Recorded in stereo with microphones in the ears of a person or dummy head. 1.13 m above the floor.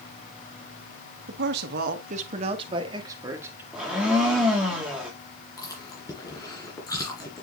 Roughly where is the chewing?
Centre.